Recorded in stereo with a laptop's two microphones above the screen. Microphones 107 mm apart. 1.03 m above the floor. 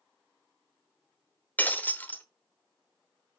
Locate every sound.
1.6 s breaking glass: 20° left (ahead or behind), 1.0 m